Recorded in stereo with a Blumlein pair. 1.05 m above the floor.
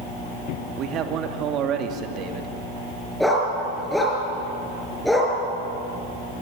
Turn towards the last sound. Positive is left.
turn(degrees=0)